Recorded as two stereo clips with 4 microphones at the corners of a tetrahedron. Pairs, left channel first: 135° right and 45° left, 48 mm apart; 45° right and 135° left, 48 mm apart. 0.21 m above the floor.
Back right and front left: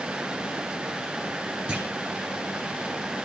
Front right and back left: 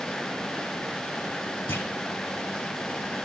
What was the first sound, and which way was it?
A clunk, 25° right.